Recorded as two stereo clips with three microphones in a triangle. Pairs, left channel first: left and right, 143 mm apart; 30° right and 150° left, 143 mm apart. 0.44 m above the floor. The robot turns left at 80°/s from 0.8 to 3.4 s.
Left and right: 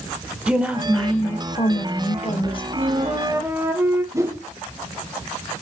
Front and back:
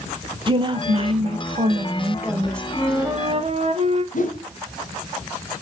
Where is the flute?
110° right, 0.9 m; by 4.0 s 165° right, 0.9 m.